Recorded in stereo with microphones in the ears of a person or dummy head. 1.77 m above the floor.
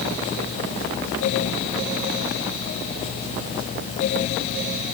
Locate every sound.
Only background noise.